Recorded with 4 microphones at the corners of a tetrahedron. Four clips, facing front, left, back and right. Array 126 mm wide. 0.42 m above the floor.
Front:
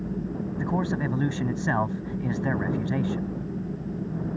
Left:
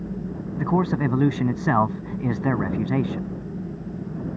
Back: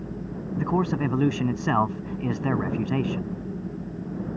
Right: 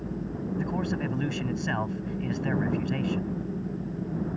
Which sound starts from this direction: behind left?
A man speaking, at 0.6 s.